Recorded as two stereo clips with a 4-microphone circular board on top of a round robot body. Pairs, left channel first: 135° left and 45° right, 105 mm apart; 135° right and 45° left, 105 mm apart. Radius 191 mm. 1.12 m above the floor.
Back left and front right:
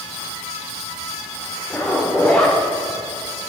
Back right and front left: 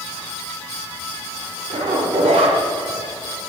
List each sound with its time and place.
1.7 s a zipper: 55° left, 0.8 m